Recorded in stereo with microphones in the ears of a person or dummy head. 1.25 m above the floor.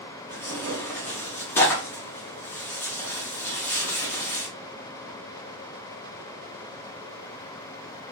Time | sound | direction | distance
0.3 | tearing paper | 10° left (ahead or behind) | 1.1 m